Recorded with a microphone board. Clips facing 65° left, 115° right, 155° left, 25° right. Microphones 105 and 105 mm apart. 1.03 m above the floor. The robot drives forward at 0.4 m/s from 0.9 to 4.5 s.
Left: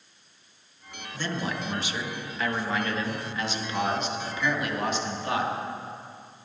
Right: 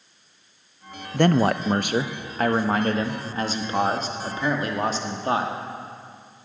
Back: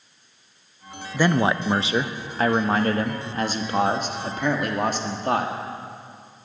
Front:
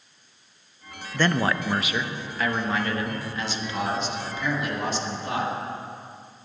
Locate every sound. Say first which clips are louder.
1.1 s a man speaking: right 12 dB, back 3 dB; 125° right, 0.5 m; by 5.5 s 165° right, 1.7 m